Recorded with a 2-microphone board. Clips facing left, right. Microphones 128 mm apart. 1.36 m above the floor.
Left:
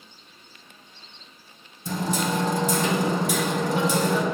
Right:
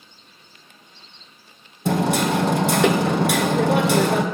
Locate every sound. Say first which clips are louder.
1.9 s hammering: right 6 dB; 70° right (ahead or behind), 0.8 m